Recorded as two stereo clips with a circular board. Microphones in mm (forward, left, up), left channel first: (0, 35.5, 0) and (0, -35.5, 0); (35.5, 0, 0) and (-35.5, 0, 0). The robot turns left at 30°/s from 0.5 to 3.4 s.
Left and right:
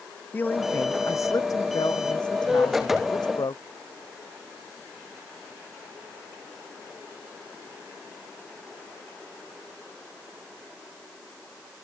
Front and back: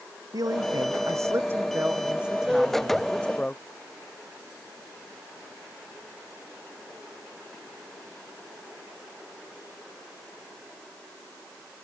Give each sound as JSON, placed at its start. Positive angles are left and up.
{"t": 0.3, "sound": "a man speaking", "azimuth_deg": 155}